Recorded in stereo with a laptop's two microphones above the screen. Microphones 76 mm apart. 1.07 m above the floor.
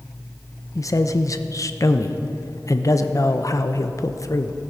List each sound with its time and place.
0.8 s a man speaking: 45° left (ahead or behind), 0.7 m